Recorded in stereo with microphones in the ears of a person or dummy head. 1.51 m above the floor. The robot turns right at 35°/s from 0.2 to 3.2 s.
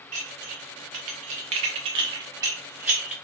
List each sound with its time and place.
0.1 s dishes clattering: 40° right (ahead or behind), 0.6 m; by 3.1 s 10° right (ahead or behind), 0.6 m